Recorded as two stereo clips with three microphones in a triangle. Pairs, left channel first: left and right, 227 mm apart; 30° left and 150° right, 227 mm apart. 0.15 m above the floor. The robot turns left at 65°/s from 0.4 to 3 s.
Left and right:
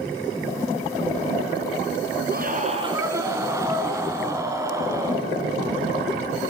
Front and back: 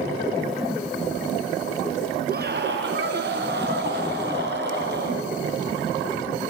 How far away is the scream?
About 2.0 m.